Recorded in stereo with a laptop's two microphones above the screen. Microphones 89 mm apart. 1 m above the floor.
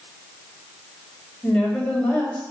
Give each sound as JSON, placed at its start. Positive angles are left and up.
{"t": 1.4, "sound": "a woman speaking", "side_deg": 15, "distance_m": 4.5}